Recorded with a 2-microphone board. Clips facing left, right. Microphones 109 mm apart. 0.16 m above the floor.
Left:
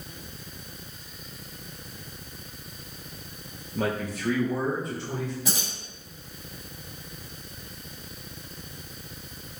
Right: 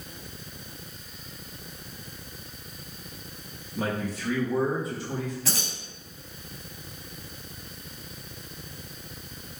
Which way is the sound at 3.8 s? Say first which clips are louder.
Left 1 dB; 65° left (ahead or behind).